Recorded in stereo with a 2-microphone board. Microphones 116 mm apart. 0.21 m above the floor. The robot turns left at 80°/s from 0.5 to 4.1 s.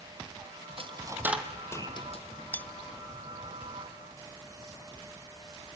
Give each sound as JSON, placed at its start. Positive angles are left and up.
{"t": 0.8, "sound": "a dropped coin", "side_deg": -55, "distance_m": 2.5}
{"t": 2.5, "sound": "cutlery clinking", "side_deg": 15, "distance_m": 0.5}